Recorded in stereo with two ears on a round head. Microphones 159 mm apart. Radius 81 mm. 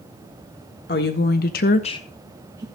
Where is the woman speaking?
60° left (ahead or behind), 1.6 m; by 2.6 s 25° right (ahead or behind), 1.1 m.